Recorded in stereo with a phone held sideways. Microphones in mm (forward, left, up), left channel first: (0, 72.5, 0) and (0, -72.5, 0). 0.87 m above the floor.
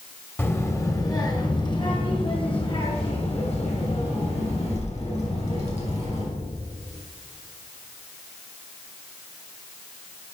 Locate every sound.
0.4 s a child speaking: 15° left (ahead or behind), 1.3 m; by 6.3 s 55° left (ahead or behind), 4 m